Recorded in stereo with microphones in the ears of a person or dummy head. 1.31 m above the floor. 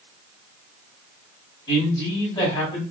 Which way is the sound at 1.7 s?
20° left (ahead or behind).